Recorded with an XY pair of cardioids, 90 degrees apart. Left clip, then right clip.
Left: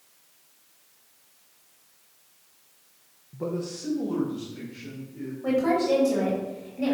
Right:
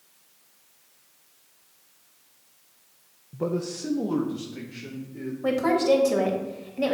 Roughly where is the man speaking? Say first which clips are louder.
Right 3 dB; ahead right.